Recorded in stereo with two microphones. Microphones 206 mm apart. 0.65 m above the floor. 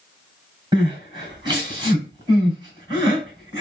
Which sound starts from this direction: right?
Crying, at 0.7 s.